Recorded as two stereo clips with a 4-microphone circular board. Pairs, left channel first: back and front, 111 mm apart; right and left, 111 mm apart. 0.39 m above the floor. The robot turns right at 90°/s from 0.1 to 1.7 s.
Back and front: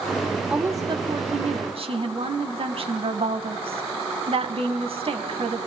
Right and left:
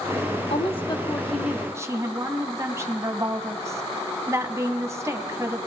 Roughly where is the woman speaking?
Right.